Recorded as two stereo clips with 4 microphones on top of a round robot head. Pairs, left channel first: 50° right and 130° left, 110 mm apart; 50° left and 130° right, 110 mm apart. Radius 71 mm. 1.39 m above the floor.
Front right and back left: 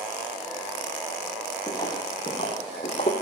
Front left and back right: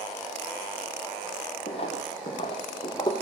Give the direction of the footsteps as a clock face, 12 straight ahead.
12 o'clock.